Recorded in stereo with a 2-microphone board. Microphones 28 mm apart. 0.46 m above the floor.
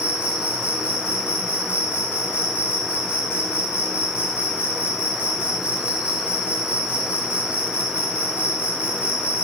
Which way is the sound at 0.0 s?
60° right (ahead or behind).